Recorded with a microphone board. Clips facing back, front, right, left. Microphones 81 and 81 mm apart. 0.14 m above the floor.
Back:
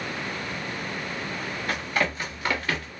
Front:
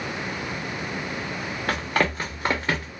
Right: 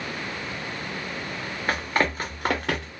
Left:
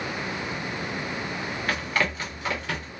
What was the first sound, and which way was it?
Running footsteps, 20° right.